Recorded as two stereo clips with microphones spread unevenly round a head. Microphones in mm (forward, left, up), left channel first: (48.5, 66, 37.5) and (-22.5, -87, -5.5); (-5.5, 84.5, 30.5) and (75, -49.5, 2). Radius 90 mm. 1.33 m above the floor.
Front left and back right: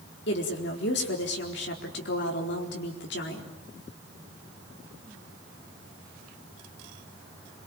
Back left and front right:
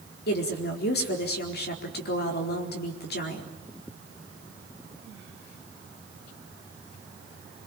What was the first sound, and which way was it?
A woman speaking, 100° left.